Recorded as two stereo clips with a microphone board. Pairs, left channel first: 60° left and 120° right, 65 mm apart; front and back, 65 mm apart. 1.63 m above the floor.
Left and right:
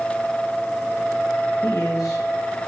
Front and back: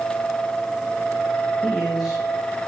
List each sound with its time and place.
1.6 s a man speaking: 95° left, 2 m